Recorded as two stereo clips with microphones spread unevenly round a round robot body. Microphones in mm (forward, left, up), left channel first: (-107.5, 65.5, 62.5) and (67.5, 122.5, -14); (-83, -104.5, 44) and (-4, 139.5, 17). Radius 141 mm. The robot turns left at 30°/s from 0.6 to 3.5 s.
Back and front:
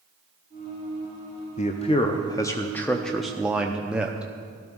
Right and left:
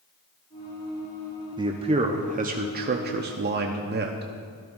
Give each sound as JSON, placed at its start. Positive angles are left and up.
{"t": 1.6, "sound": "a man speaking", "azimuth_deg": 130, "distance_m": 0.7}